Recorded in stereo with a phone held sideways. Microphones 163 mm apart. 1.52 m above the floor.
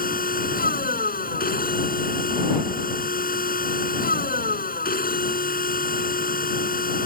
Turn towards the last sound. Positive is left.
turn(degrees=65)  # may be behind; listen again after turning